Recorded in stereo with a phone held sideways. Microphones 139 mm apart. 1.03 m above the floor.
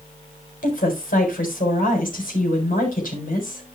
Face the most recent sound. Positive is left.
turn(degrees=85)